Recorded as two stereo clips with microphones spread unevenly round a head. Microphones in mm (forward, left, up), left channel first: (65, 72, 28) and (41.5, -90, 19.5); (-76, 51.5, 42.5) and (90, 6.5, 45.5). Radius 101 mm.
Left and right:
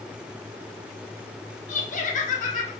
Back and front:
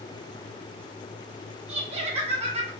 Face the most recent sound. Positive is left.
turn(degrees=40)